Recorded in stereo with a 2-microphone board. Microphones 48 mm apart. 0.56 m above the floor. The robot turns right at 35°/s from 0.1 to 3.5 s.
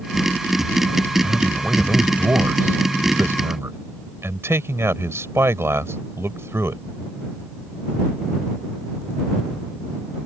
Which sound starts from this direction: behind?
A man speaking, at 1.2 s.